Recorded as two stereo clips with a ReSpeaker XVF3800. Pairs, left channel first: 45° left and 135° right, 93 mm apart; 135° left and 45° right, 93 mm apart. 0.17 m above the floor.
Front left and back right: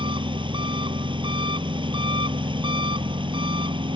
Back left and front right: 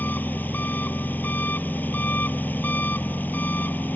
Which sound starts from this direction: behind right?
An engine running, at 0.0 s.